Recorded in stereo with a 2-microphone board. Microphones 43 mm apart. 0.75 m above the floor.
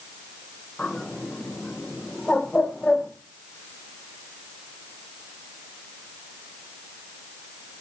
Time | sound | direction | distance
0.8 | a bird | 25° left (ahead or behind) | 3.5 m